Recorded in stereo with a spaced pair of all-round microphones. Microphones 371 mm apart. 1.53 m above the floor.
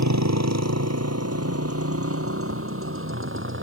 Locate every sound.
0.0 s a motorcycle: 45° right (ahead or behind); by 3.6 s 30° right (ahead or behind)
2.5 s tapping: 40° right (ahead or behind)